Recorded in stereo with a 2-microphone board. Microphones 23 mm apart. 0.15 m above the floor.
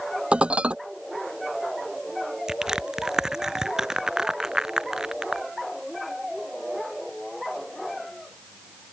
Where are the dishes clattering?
55° right (ahead or behind).